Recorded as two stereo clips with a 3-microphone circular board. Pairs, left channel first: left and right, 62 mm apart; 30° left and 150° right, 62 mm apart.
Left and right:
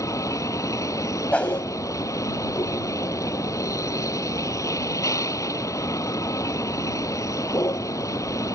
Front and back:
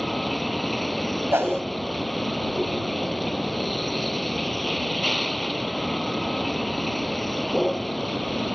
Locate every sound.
0.0 s a vehicle: 120° left
1.3 s a whoosh: 160° left